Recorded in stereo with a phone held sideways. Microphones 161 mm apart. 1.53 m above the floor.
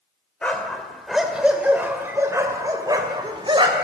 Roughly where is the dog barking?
Centre.